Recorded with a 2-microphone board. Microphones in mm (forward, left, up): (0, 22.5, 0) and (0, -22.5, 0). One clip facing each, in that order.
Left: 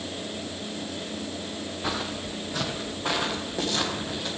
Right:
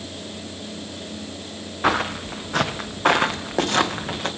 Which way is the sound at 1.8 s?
55° right (ahead or behind).